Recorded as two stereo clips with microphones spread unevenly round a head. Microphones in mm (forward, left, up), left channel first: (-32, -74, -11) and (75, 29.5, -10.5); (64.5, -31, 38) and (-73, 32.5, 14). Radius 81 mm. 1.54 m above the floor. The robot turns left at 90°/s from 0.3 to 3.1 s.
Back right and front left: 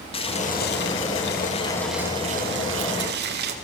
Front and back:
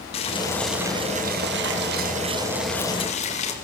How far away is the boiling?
About 3 m.